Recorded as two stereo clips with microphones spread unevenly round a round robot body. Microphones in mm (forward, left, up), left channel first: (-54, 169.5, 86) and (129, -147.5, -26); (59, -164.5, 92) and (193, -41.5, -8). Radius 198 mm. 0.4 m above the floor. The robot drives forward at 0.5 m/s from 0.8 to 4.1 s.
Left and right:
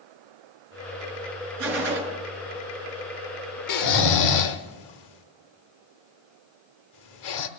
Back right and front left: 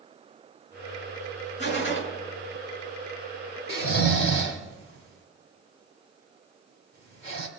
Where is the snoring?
165° left, 0.6 m; by 7.5 s 170° left, 0.8 m.